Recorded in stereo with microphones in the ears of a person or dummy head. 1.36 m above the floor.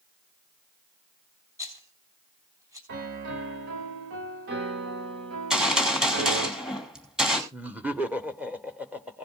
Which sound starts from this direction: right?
A piano, at 2.9 s.